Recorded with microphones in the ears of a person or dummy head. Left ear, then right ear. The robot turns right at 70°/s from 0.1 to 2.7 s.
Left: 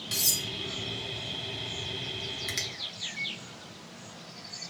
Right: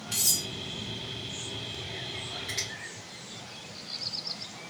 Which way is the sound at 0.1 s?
60° left (ahead or behind).